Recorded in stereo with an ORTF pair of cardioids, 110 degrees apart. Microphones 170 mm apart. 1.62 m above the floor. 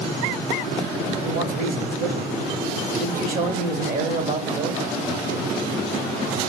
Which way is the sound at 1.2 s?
50° right.